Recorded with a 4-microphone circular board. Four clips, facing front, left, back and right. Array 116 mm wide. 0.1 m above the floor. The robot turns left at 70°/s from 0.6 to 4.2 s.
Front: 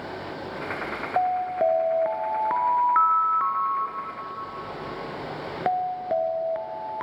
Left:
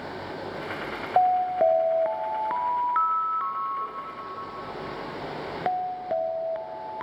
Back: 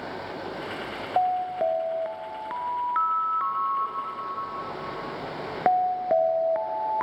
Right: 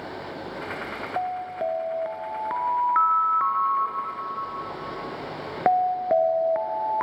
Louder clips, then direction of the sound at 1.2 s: Left 8 dB, front 1 dB; 95° left.